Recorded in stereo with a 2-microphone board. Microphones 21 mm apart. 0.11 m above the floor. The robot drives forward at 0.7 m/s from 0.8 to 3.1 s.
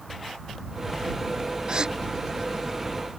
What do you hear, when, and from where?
1.7 s a gasp: 35° right (ahead or behind)